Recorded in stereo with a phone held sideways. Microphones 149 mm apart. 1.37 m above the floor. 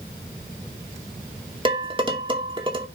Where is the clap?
I don't hear a clap.